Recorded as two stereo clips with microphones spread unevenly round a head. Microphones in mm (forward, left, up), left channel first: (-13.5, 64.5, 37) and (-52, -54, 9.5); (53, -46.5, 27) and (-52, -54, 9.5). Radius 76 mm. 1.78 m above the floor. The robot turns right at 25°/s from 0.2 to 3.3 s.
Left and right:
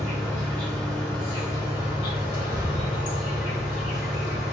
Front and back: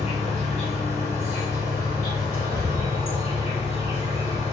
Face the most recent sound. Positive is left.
turn(degrees=60)